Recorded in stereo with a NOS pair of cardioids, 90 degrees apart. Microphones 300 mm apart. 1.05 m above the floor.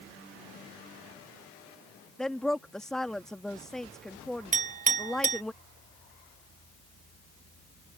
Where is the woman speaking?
Straight ahead.